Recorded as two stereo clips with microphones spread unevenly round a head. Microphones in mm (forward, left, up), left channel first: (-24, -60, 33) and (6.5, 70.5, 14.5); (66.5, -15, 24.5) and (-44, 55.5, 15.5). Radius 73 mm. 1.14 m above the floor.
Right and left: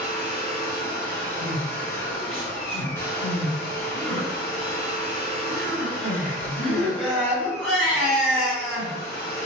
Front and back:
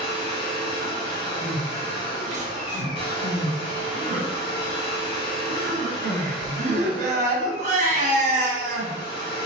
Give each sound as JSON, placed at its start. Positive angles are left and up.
{"t": 0.0, "sound": "a machine running", "azimuth_deg": -45, "distance_m": 0.9}
{"t": 1.4, "sound": "crying", "azimuth_deg": 170, "distance_m": 1.3}